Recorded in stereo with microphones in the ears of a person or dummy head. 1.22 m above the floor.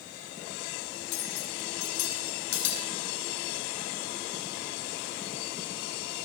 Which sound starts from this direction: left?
Cutlery clinking, at 1.1 s.